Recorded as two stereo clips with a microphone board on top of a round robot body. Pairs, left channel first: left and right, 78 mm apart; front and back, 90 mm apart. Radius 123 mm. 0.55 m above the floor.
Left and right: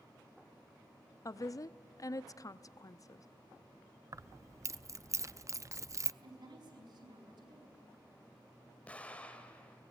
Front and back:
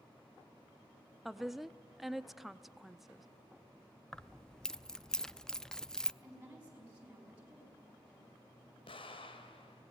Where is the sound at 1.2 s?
90° left, 0.9 m.